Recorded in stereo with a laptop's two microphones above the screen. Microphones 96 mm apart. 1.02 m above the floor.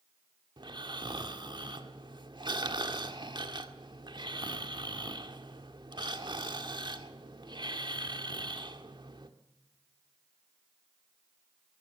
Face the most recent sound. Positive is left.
turn(degrees=-50)  # may be behind; listen again after turning